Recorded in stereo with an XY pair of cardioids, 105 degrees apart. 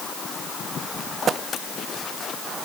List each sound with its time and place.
Only background noise.